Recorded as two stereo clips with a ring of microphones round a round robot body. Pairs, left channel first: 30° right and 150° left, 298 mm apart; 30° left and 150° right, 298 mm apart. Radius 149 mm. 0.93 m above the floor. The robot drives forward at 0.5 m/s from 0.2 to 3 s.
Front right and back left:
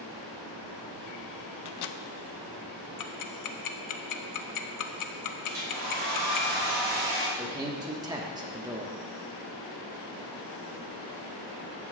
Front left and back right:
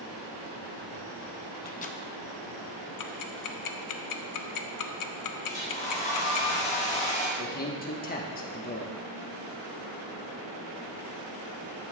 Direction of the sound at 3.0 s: Straight ahead.